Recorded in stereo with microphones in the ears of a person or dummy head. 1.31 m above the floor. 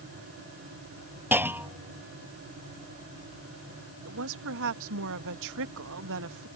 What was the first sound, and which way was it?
A clunk, 15° right (ahead or behind).